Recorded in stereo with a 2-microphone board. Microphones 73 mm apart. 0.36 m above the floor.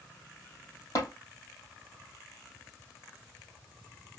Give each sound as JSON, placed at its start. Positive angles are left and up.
{"t": 0.9, "sound": "tapping", "side_deg": 55, "distance_m": 2.5}